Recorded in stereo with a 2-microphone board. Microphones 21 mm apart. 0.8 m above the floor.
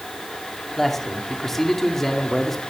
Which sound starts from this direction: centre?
A man speaking, at 0.8 s.